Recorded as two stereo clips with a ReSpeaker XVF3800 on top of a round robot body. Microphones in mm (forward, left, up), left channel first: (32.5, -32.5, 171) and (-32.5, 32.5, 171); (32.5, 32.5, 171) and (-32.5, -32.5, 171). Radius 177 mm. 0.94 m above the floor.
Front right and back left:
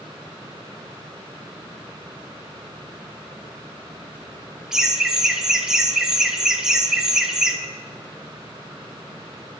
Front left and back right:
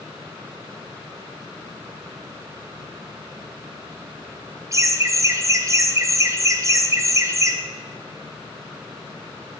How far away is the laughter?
About 0.9 m.